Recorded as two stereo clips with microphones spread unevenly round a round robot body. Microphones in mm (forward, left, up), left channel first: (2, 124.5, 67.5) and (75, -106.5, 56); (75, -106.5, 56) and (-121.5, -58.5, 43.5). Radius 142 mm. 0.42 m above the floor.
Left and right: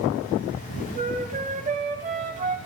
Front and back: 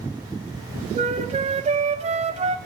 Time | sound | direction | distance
0.9 | a flute | 135° right | 0.9 m